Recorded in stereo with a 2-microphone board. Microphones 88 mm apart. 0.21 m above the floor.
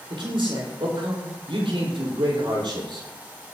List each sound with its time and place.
0.1 s a man speaking: 70° right (ahead or behind), 5 m; by 3.1 s 65° right (ahead or behind), 5.5 m